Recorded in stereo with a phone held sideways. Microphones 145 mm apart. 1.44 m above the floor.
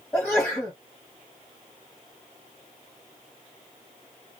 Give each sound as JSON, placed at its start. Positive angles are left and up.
{"t": 0.1, "sound": "a sneeze", "side_deg": 5, "distance_m": 0.9}